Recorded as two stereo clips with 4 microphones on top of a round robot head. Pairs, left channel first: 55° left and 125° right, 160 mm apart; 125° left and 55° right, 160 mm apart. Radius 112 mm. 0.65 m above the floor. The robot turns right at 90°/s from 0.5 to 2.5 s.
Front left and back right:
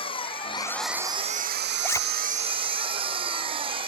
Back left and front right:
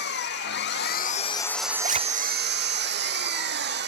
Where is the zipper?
25° right; by 2.0 s 10° right.